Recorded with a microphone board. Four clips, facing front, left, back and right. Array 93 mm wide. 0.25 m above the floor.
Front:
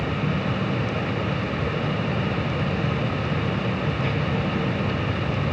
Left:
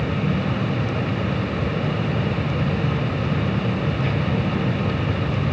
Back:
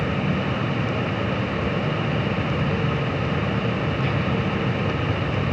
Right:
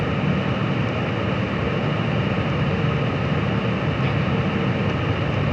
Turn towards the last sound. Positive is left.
No sound to turn to.